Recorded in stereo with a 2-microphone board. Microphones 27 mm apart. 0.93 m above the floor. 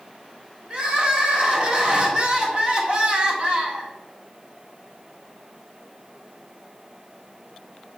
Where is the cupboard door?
I don't hear a cupboard door.